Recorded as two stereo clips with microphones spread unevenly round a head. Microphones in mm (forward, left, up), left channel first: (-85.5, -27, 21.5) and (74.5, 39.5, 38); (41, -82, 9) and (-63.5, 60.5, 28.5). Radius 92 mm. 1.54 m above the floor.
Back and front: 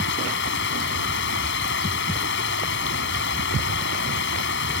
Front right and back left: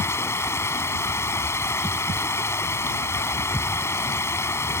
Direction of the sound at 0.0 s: 130° right.